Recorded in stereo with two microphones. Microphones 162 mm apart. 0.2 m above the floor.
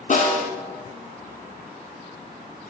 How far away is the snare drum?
About 1.1 m.